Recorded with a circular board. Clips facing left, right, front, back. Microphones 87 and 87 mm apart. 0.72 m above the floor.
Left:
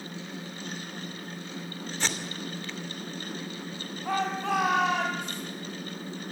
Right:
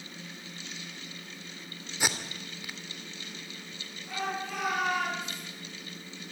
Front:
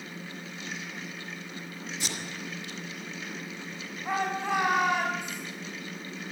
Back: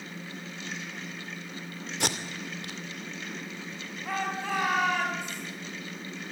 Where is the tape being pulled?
170° right, 2.5 m.